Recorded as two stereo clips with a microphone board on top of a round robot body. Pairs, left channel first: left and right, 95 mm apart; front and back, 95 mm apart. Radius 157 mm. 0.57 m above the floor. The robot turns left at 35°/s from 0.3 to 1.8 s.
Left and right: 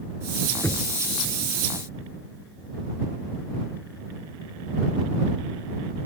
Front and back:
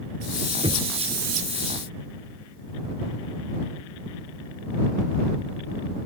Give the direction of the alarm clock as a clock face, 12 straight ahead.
No alarm clock in this recording.